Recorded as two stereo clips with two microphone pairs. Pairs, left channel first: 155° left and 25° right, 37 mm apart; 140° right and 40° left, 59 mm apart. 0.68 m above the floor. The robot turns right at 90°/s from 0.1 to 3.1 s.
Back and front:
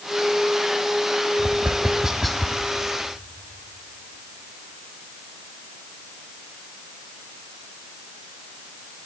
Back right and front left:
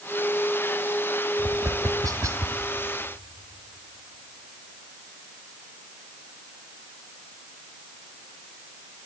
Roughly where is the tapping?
Ahead.